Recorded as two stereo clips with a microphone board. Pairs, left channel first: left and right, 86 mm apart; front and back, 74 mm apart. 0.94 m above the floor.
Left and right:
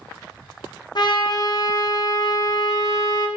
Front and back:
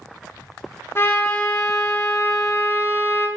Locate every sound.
0.9 s a trumpet: 55° left, 1.2 m